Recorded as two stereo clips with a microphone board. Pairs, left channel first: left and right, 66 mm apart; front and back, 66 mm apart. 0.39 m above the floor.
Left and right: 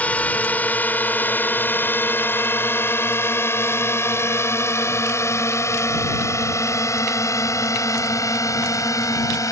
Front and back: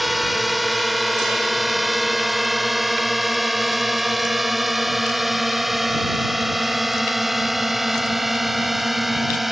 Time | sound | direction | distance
0.0 | a drone | 90° left | ?